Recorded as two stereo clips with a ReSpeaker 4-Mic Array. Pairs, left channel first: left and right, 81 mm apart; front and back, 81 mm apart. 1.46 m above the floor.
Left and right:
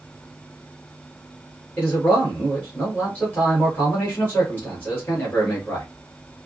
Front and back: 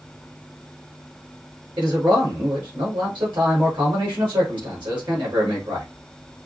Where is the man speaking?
155° left, 2.5 m.